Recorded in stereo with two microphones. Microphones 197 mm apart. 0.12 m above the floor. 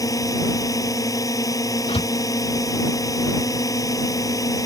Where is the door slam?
25° left (ahead or behind).